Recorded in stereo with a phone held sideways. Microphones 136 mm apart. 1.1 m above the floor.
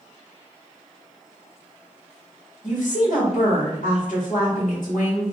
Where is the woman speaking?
75° left (ahead or behind), 1.6 m.